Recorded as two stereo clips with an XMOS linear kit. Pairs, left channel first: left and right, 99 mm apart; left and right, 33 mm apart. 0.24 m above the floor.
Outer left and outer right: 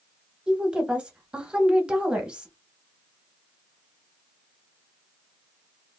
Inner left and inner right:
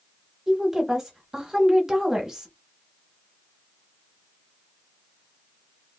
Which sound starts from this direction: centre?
A woman speaking, at 0.5 s.